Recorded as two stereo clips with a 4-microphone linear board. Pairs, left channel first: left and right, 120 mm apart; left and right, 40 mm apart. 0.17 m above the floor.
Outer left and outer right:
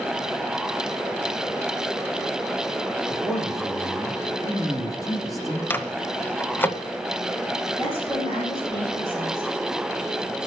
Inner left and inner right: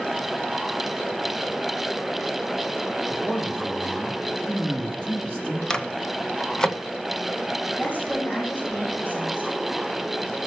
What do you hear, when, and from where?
3.1 s a man speaking: 25° left (ahead or behind), 4.5 m
5.7 s a microwave: 15° left (ahead or behind), 1.0 m
7.8 s a woman speaking: 35° left (ahead or behind), 8.5 m